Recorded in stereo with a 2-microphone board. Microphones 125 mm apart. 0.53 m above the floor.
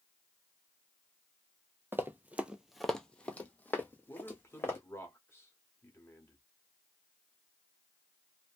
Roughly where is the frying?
No frying in this recording.